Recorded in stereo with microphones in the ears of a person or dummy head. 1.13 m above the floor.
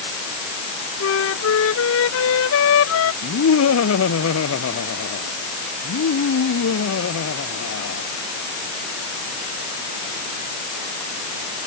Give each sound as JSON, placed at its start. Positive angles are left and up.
{"t": 1.0, "sound": "a flute", "side_deg": 75}
{"t": 3.2, "sound": "laughter", "side_deg": 75}